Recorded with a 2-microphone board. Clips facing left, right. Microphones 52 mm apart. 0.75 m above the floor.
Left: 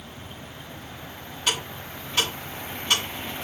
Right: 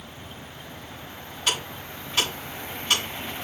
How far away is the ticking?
About 4 m.